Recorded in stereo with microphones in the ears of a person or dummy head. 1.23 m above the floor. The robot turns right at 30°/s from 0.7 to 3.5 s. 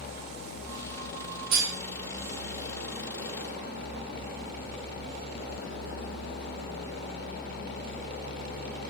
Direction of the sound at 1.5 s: 70° right (ahead or behind).